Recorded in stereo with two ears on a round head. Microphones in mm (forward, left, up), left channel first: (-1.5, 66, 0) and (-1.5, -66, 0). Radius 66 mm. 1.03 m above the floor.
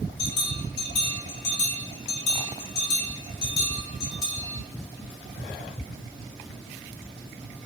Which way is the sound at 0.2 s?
85° left.